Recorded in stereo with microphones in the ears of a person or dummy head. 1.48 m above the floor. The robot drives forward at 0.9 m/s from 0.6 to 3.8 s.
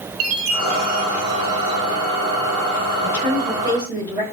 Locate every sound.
0.2 s a chime: 80° right, 2 m; by 1.9 s 65° right (ahead or behind), 2 m
3.0 s a woman speaking: 20° right (ahead or behind), 8 m